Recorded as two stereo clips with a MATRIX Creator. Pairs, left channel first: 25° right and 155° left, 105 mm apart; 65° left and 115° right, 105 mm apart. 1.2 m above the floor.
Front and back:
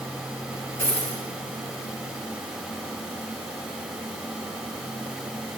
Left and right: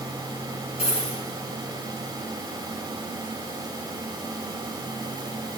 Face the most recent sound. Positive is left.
turn(degrees=45)